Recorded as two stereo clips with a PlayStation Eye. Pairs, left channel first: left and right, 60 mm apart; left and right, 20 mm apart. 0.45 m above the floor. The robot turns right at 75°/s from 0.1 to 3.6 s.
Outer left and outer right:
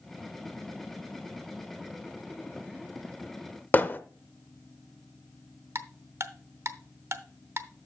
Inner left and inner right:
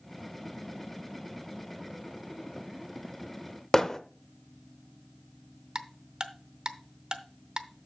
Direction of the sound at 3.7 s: 30° left (ahead or behind).